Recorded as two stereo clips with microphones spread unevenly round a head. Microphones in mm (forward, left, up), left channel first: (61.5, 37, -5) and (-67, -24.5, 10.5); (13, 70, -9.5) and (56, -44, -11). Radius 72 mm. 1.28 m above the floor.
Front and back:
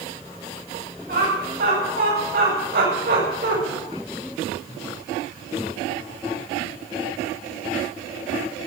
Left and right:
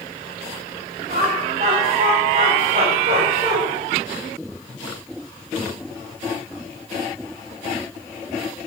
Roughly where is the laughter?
Behind right.